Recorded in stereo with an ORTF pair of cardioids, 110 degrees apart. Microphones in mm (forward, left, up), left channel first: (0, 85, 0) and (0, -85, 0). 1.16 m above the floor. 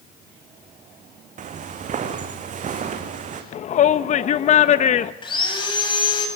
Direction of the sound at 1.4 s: 50° right.